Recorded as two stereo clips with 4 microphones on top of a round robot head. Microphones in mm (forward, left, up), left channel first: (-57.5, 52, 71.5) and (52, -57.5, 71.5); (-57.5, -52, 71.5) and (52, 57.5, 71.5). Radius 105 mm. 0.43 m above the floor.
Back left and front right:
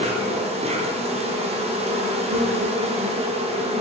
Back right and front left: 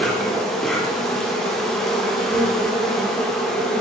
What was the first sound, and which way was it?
An insect, 50° right.